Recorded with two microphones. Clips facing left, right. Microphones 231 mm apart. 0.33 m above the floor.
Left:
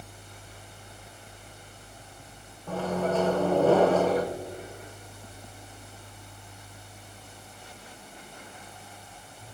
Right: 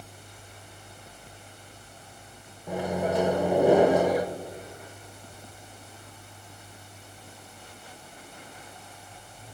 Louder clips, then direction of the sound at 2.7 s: Even; 15° right (ahead or behind).